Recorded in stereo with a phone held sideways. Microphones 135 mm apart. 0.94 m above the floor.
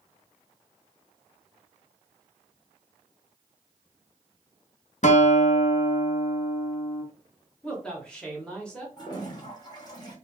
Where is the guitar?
60° left (ahead or behind), 0.5 m.